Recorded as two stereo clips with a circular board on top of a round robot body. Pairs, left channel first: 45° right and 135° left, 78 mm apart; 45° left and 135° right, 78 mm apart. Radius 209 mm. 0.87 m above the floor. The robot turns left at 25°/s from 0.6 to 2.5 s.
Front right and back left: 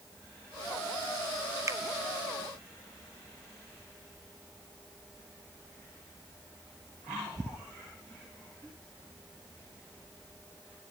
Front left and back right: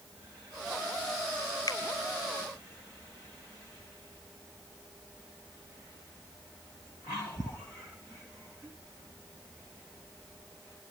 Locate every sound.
1.7 s a finger snap: 85° left, 1.3 m; by 1.8 s 80° left, 1.3 m